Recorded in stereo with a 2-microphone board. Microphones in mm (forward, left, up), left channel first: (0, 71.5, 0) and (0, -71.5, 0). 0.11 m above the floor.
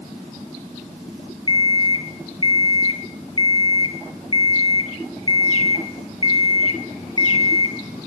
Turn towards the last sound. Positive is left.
turn(degrees=35)  # may be behind; listen again after turning